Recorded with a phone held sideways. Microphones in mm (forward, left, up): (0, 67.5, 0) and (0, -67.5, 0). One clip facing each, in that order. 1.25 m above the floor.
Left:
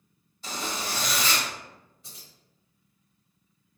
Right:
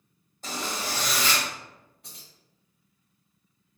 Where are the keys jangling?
60° right (ahead or behind), 1.4 m.